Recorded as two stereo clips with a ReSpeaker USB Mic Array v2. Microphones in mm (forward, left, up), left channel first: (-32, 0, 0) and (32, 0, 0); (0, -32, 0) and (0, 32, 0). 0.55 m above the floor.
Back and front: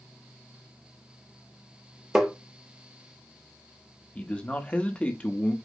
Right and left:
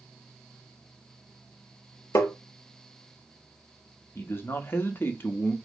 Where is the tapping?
75° right, 0.7 m.